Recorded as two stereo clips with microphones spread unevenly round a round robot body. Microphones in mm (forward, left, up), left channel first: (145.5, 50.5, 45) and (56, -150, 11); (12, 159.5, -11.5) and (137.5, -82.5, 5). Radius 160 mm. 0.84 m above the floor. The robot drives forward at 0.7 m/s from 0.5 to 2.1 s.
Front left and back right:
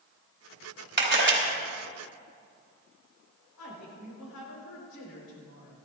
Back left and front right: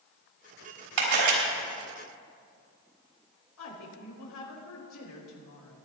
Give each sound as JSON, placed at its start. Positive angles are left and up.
{"t": 1.0, "sound": "a camera shutter", "azimuth_deg": -75, "distance_m": 4.0}
{"t": 3.6, "sound": "a woman speaking", "azimuth_deg": 100, "distance_m": 4.0}